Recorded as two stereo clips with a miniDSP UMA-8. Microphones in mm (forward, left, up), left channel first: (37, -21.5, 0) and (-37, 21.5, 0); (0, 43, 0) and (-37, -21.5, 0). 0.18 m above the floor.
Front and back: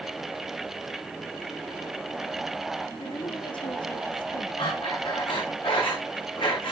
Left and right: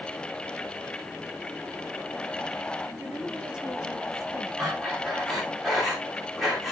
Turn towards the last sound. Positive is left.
turn(degrees=-35)